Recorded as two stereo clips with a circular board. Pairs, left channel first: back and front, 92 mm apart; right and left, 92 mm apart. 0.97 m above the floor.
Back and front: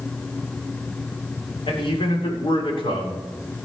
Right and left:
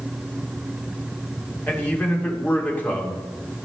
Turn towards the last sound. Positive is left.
turn(degrees=-160)